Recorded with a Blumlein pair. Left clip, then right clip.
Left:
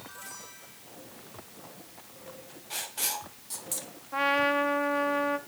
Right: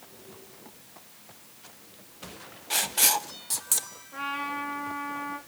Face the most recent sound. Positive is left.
turn(degrees=65)